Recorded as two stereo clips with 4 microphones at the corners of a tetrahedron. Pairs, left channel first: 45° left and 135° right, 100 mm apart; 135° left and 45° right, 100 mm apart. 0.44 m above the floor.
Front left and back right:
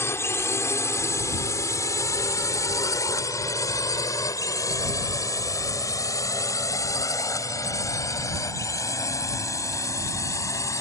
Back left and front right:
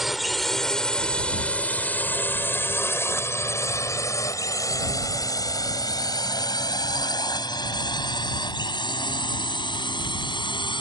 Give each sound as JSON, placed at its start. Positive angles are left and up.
{"t": 0.0, "sound": "a drone", "azimuth_deg": 40}